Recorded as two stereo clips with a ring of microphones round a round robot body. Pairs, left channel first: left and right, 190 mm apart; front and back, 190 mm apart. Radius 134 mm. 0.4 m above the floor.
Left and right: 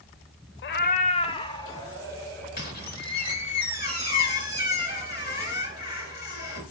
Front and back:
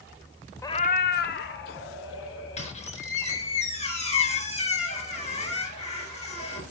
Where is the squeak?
55° left, 4.5 m.